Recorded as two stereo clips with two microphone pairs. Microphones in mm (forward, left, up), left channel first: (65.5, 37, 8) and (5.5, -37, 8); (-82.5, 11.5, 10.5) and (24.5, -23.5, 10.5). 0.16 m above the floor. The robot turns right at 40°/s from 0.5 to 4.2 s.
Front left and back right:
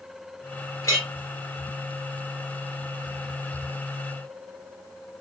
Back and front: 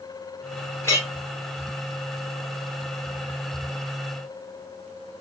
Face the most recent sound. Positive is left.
turn(degrees=-125)